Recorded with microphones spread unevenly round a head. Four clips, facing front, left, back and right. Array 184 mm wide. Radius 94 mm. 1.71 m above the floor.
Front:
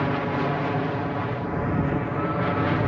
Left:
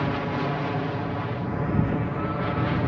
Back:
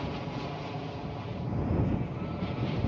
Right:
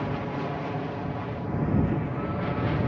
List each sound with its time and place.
0.0 s an aircraft: 20° left; by 2.9 s 10° left